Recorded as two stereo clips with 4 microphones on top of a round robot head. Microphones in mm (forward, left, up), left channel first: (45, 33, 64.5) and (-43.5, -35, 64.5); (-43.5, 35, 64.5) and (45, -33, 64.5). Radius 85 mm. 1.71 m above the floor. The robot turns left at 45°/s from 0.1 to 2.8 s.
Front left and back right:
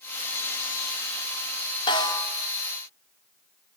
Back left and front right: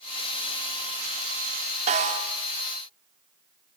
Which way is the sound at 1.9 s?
10° right.